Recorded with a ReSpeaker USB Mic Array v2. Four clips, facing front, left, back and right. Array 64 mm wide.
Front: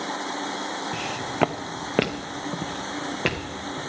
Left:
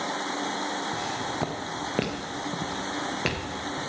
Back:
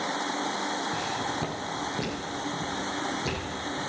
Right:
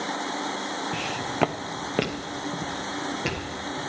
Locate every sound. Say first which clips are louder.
0.9 s footsteps: right 1 dB, front 2 dB; 65° right, 0.8 m; by 3.8 s 15° left, 2.5 m